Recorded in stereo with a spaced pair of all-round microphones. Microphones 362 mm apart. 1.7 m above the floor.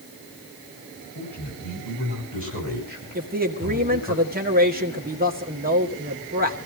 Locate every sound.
1.1 s a man speaking: 65° left (ahead or behind), 8 m; by 4.2 s 70° left (ahead or behind), 6 m
3.1 s a man speaking: 25° right (ahead or behind), 1.8 m